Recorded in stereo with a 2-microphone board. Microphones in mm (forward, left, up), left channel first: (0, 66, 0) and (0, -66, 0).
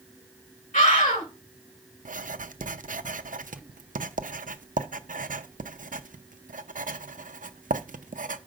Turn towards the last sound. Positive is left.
turn(degrees=-70)  # may be behind; listen again after turning